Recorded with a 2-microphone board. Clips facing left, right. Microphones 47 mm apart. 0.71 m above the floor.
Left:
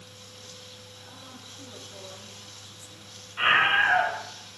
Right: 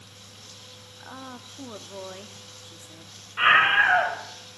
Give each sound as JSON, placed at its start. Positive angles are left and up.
{"t": 1.0, "sound": "a woman speaking", "side_deg": -50, "distance_m": 1.2}
{"t": 3.4, "sound": "a scream", "side_deg": -20, "distance_m": 3.0}